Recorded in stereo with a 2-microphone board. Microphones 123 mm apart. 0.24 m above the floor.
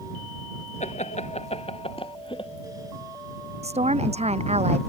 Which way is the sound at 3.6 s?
60° right (ahead or behind).